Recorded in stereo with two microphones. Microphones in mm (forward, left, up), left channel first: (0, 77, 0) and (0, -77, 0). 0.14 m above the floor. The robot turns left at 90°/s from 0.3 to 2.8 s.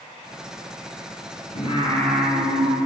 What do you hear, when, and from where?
1.6 s singing: 55° left, 3 m; by 2.8 s 50° right, 3 m